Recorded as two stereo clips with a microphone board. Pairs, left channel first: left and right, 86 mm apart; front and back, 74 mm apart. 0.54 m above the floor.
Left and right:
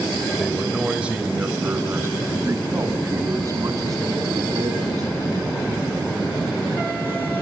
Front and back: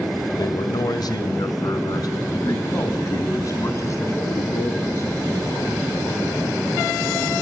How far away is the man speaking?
About 2.5 m.